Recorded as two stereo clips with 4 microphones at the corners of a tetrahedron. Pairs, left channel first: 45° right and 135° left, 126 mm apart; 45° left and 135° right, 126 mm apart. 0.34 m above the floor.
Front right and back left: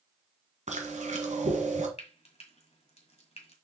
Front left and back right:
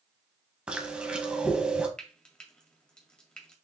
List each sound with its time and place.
0.7 s chewing: 145° left, 1.6 m
2.0 s frying: 35° right, 1.7 m